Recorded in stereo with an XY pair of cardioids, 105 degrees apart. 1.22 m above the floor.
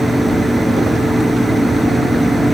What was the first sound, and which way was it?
A machine running, straight ahead.